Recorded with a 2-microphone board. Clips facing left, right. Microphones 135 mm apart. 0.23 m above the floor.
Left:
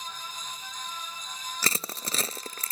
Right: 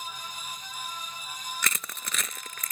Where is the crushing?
35° left (ahead or behind).